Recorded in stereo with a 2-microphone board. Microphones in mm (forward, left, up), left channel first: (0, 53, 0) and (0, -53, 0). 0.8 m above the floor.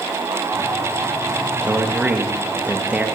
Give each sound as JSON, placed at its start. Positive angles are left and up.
{"t": 1.6, "sound": "a man speaking", "side_deg": -15, "distance_m": 0.5}